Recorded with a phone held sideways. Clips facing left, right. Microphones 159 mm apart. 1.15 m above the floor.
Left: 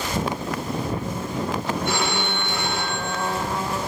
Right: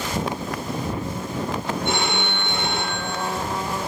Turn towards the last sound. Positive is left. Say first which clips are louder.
# even
turn(degrees=-25)  # may be behind; listen again after turning